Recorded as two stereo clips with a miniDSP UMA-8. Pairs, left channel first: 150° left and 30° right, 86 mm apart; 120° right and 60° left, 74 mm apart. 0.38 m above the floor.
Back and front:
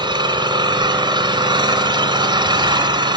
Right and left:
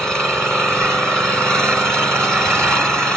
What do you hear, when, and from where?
0.0 s an engine running: 40° right, 3.5 m